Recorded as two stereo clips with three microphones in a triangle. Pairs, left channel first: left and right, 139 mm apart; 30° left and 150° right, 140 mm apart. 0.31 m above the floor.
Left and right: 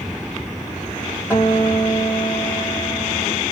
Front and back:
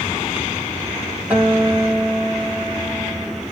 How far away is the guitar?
About 1.6 m.